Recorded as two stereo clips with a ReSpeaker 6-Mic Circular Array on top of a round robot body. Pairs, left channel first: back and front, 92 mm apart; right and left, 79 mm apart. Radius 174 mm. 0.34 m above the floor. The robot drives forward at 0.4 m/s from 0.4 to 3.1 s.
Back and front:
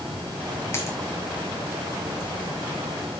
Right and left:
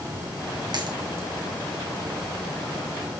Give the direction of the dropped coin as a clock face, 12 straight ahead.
8 o'clock.